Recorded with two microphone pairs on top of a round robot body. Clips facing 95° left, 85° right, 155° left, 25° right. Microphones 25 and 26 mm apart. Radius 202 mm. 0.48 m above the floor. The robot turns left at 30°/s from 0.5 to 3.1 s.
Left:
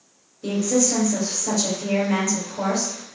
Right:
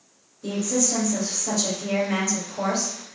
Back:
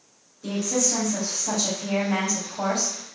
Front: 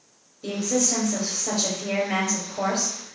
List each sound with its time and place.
0.4 s a woman speaking: 50° left, 2.5 m; by 3.2 s 30° right, 2.5 m